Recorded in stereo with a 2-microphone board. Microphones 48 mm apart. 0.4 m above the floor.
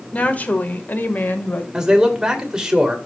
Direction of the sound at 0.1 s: 30° left (ahead or behind).